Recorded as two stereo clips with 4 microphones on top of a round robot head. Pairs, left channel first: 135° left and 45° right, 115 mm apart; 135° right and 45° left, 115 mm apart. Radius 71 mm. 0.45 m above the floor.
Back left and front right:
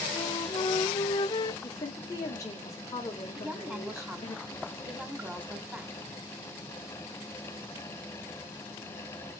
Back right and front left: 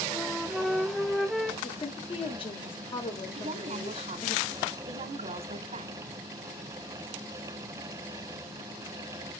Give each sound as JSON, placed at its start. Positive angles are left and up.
{"t": 0.1, "sound": "a flute", "azimuth_deg": 135, "distance_m": 0.6}
{"t": 1.6, "sound": "a woman speaking", "azimuth_deg": -165, "distance_m": 1.6}
{"t": 3.4, "sound": "a woman speaking", "azimuth_deg": 30, "distance_m": 1.5}